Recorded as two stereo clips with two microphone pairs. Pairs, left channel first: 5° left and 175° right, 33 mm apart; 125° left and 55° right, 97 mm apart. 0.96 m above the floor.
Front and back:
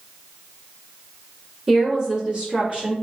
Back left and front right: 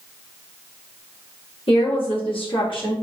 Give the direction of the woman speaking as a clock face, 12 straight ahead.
8 o'clock.